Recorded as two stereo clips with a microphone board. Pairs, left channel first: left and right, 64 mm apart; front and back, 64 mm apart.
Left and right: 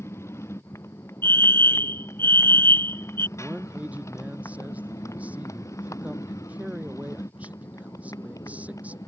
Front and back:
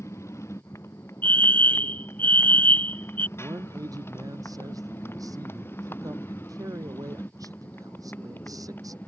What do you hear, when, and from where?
0.0 s a motorcycle: 45° left; by 9.1 s 60° left
1.2 s a fire alarm: 50° left
3.4 s a man speaking: 160° right